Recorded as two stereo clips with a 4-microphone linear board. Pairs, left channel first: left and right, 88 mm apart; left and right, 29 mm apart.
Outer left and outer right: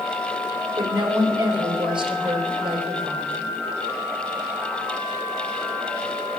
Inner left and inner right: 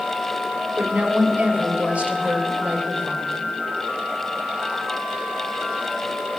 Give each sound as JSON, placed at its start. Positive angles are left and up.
{"t": 0.8, "sound": "a woman speaking", "side_deg": -60, "distance_m": 3.5}